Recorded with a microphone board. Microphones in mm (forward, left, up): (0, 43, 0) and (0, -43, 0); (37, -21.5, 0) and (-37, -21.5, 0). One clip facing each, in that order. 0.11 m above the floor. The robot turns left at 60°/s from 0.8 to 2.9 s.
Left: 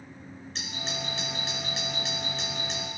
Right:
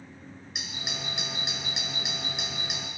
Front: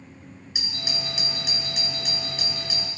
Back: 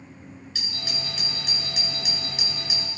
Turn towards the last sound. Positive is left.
turn(degrees=-165)